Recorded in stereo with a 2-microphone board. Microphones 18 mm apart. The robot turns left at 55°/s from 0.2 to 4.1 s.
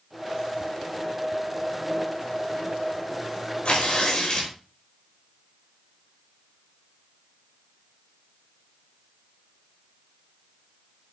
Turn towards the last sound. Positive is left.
turn(degrees=45)  # may be behind; listen again after turning